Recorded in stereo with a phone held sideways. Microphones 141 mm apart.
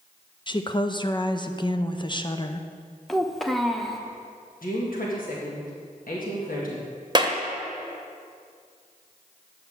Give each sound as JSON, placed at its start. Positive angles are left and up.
{"t": 0.5, "sound": "a woman speaking", "side_deg": 35, "distance_m": 0.6}
{"t": 3.1, "sound": "a child speaking", "side_deg": 0, "distance_m": 0.9}
{"t": 4.6, "sound": "a woman speaking", "side_deg": 80, "distance_m": 1.7}
{"t": 7.2, "sound": "a clap", "side_deg": -30, "distance_m": 0.9}